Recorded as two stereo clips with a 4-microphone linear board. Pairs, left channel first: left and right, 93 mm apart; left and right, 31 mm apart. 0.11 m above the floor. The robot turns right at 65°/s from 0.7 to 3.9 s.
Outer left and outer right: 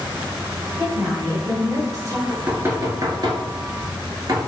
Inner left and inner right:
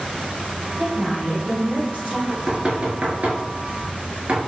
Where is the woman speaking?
155° right, 1.7 m; by 2.2 s 65° right, 1.7 m.